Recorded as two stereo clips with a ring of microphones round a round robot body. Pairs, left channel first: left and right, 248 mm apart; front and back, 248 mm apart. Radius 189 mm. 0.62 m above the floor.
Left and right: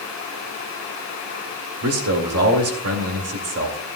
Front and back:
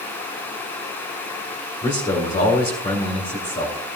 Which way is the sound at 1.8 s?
75° right.